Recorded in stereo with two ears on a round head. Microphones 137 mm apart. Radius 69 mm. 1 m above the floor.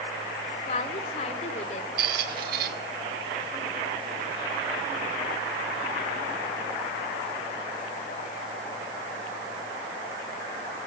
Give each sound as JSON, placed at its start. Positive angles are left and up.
{"t": 0.7, "sound": "a woman speaking", "side_deg": 45, "distance_m": 2.5}
{"t": 2.0, "sound": "a squeak", "side_deg": -60, "distance_m": 1.9}